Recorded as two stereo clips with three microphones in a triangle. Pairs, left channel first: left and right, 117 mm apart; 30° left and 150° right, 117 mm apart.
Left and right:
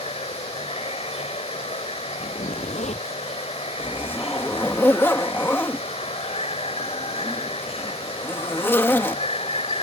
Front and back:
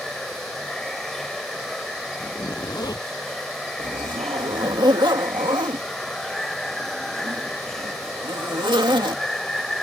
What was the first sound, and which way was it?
Running water, 115° left.